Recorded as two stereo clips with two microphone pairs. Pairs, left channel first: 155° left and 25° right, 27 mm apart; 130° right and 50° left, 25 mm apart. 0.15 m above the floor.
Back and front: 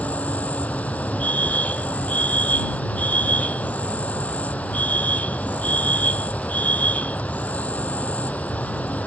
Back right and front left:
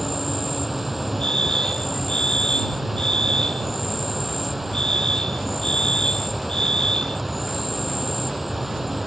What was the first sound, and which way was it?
An insect, 135° left.